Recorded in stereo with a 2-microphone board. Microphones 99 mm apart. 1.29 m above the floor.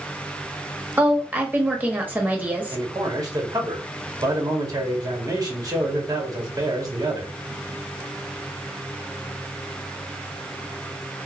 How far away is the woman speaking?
About 0.8 m.